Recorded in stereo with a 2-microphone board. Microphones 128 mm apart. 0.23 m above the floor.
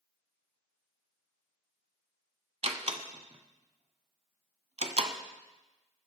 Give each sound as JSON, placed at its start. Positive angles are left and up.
{"t": 2.6, "sound": "a door slam", "side_deg": -55, "distance_m": 1.1}